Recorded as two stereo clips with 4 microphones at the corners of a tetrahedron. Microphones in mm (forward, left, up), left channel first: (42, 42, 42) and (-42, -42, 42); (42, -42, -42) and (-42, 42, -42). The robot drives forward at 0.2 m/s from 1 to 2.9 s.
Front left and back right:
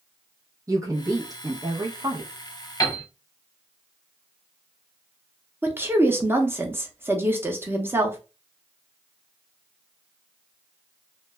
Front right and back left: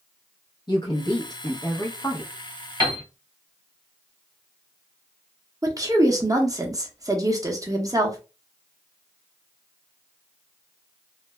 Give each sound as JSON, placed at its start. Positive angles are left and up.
{"t": 0.7, "sound": "a woman speaking", "azimuth_deg": -80, "distance_m": 0.8}
{"t": 2.8, "sound": "a piano", "azimuth_deg": 90, "distance_m": 0.9}
{"t": 5.6, "sound": "a woman speaking", "azimuth_deg": 165, "distance_m": 0.7}